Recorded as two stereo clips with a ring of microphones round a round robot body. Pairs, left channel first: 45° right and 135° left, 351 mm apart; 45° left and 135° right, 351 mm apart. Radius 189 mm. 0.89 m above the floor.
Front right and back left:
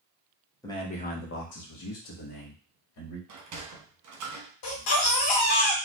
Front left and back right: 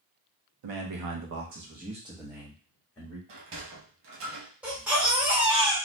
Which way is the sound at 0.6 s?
125° right.